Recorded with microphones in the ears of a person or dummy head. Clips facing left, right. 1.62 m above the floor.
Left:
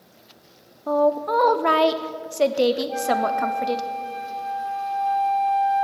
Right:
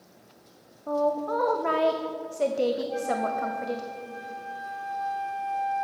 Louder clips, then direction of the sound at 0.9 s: Left 6 dB; 85° left.